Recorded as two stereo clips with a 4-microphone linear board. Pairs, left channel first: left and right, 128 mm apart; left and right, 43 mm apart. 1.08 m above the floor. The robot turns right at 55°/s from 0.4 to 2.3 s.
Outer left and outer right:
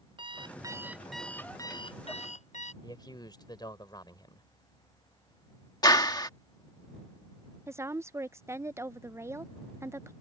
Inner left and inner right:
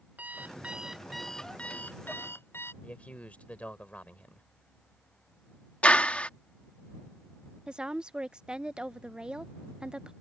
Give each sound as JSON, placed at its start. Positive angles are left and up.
{"t": 0.2, "sound": "an alarm clock", "azimuth_deg": -40}
{"t": 2.8, "sound": "a man speaking", "side_deg": 35}
{"t": 5.8, "sound": "a clap", "side_deg": 30}
{"t": 7.7, "sound": "a woman speaking", "side_deg": -20}